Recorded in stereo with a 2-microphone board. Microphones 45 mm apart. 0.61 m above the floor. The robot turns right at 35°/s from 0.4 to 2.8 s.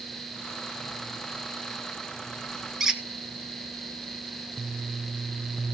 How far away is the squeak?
About 1.2 m.